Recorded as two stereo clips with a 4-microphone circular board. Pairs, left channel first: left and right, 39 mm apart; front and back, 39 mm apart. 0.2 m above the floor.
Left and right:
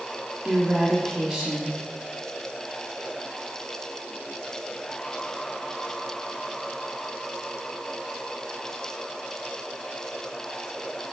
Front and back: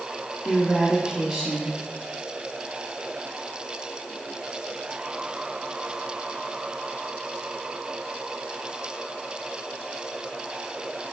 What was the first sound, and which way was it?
A woman speaking, 150° right.